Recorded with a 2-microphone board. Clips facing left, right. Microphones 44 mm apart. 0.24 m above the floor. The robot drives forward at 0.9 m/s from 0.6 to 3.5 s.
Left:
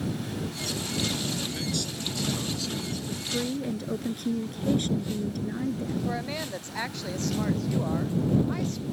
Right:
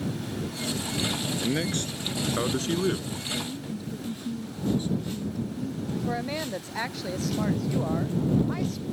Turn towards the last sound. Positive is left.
turn(degrees=0)  # may be behind; listen again after turning